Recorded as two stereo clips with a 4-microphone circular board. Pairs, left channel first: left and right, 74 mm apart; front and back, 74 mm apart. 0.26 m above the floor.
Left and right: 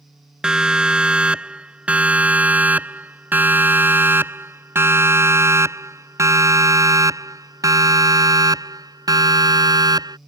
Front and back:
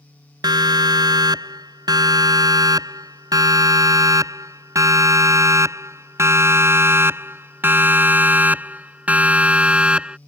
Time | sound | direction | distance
0.4 | a siren | 170° right | ?